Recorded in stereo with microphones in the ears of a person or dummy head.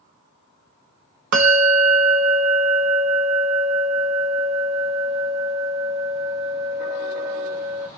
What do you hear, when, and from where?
1.3 s a bell: 55° right (ahead or behind), 0.8 m